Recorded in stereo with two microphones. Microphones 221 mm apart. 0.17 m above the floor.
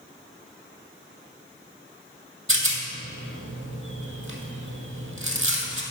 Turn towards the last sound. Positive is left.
turn(degrees=-80)